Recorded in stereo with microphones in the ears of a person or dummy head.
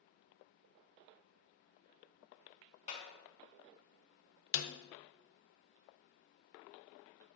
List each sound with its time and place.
2.9 s a clap: 35° left (ahead or behind), 1.3 m
4.5 s a snare drum: 60° left (ahead or behind), 0.5 m